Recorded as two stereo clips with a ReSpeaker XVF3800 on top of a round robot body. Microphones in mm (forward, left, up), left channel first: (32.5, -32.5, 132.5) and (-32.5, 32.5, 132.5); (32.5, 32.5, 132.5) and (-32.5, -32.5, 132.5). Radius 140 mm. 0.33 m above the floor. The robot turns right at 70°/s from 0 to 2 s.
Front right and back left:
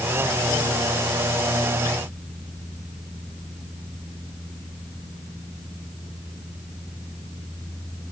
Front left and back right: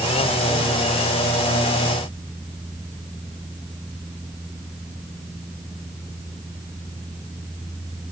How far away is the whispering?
I don't hear whispering.